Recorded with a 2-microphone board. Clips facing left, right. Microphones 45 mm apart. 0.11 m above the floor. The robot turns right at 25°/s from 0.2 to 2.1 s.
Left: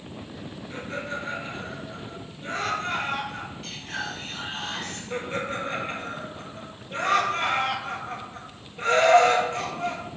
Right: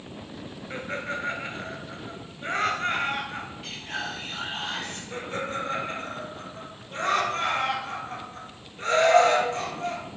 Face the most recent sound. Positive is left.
turn(degrees=30)  # may be behind; listen again after turning